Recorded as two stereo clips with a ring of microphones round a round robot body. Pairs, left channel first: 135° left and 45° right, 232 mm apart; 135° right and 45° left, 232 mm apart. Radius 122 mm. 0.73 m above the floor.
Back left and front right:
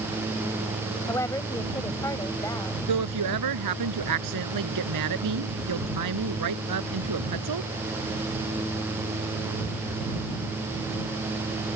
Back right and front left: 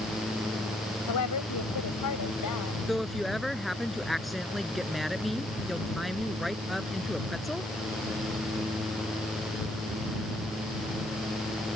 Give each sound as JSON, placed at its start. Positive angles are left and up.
{"t": 1.1, "sound": "a woman speaking", "azimuth_deg": -145}
{"t": 2.9, "sound": "a woman speaking", "azimuth_deg": -45}